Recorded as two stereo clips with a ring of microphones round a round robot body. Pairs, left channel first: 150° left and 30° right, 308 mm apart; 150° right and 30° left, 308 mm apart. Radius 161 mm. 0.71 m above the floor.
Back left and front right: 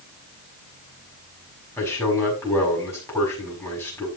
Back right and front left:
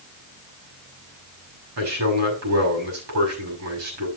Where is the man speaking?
70° left, 6 m.